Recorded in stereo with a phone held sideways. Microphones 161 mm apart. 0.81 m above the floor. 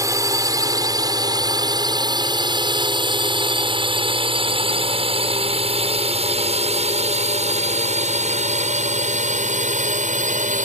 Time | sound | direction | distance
0.0 | a drone | 20° right (ahead or behind) | ?